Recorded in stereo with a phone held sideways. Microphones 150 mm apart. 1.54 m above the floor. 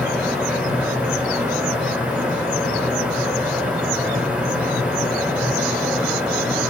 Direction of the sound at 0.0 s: 10° right (ahead or behind).